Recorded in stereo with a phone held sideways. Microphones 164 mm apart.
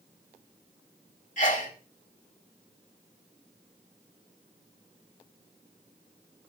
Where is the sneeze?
50° left (ahead or behind), 2.5 m.